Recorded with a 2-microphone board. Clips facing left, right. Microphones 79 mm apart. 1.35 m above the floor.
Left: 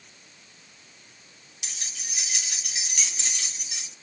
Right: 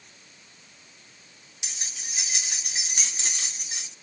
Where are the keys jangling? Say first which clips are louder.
Even; 20° right (ahead or behind), 3 m; by 3.9 s 40° right (ahead or behind), 3 m.